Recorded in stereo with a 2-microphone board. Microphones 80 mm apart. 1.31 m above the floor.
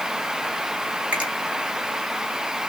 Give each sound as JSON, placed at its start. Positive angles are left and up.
{"t": 1.1, "sound": "a finger snap", "side_deg": -20, "distance_m": 3.0}